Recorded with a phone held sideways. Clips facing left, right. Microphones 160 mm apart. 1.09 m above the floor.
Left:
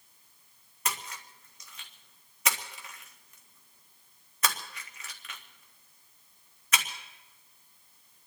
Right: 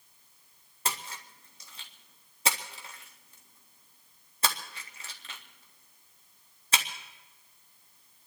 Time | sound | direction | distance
0.8 | a splash | 30° right (ahead or behind) | 1.9 m